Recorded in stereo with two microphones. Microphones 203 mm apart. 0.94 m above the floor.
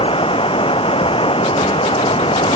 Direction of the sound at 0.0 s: 25° left (ahead or behind).